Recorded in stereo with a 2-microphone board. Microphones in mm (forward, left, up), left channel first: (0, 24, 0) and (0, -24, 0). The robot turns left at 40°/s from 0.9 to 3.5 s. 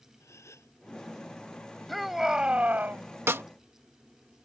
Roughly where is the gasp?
Left.